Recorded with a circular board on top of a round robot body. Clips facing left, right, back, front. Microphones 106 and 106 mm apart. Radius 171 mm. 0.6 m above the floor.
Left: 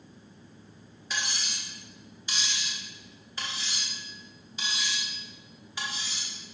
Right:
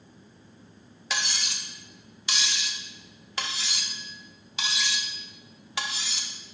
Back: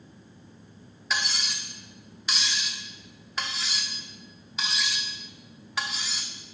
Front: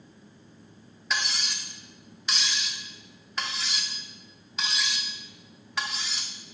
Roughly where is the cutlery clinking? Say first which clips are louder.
Right 2 dB, even; right.